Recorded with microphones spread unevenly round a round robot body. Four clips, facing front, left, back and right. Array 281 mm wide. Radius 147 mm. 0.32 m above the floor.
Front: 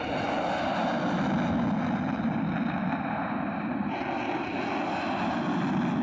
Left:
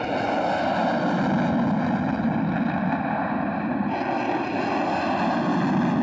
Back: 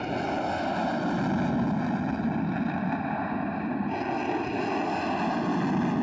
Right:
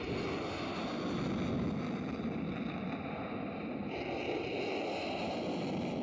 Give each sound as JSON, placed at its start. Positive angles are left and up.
{"t": 0.0, "sound": "an aircraft", "azimuth_deg": 80}